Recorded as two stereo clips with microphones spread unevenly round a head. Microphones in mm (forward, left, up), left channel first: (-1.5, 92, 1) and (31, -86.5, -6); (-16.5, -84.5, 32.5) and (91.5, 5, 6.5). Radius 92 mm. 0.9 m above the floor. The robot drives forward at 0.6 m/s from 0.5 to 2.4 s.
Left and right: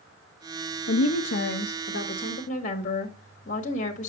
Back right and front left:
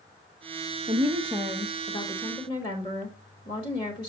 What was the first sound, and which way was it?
A woman speaking, 85° left.